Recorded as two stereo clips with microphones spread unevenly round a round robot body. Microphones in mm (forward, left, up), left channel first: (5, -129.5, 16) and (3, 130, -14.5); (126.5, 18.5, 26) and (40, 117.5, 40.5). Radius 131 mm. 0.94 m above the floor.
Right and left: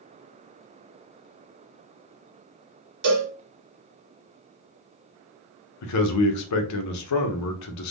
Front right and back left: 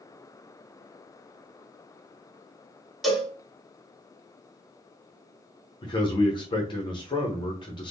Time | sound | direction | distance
3.0 | a cowbell | 45° left | 1.2 m
5.8 | a man speaking | 90° right | 0.6 m